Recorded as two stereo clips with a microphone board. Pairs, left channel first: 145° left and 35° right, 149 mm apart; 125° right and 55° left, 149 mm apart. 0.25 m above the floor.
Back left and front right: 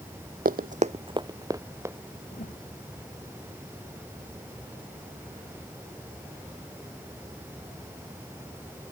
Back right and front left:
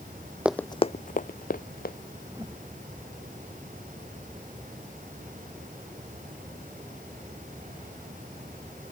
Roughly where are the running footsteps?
Ahead right.